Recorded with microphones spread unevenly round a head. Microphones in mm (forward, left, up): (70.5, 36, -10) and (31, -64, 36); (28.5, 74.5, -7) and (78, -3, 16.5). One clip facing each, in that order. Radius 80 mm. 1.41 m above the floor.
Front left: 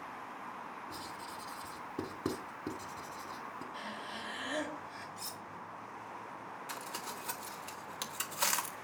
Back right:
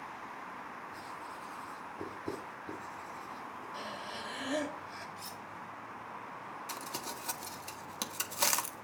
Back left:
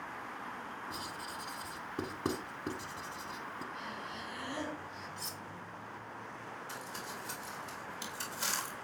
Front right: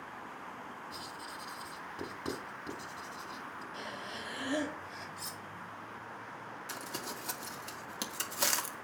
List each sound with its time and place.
0.9 s writing: 85° left, 4.5 m
3.7 s breathing: 60° right, 4 m
5.2 s cutlery clinking: 20° left, 1.2 m
6.7 s crumpling: 55° right, 1.8 m